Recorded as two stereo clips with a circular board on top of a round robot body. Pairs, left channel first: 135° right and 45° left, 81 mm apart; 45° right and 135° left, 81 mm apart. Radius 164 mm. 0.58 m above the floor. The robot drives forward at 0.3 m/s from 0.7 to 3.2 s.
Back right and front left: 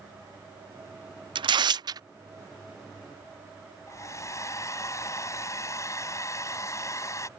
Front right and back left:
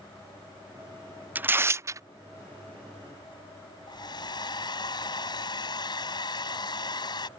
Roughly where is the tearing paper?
Ahead left.